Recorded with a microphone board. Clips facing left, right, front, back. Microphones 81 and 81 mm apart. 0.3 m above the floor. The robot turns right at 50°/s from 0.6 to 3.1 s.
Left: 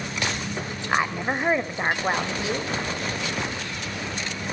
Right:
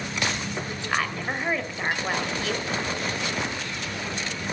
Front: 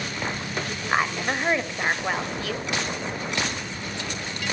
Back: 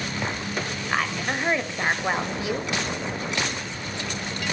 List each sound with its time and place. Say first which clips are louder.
0.9 s a woman speaking: left 4 dB, front 2 dB; 50° left, 1.5 m; by 2.8 s 140° left, 1.5 m